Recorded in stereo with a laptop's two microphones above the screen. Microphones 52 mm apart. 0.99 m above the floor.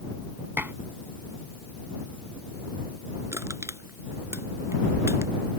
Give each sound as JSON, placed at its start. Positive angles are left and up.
{"t": 0.6, "sound": "dishes clattering", "side_deg": -40}
{"t": 3.3, "sound": "crushing", "side_deg": -60}